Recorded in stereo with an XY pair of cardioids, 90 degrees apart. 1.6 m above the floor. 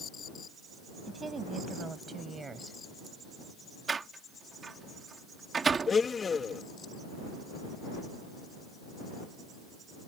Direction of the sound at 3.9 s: 40° right.